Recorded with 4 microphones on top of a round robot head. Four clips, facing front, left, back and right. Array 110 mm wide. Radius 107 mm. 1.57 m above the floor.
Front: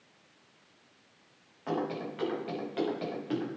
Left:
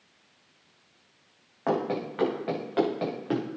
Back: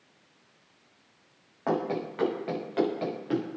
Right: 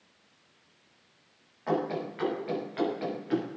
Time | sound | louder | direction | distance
1.7 | running footsteps | left 2 dB, back 4 dB | 125° left | 5.5 m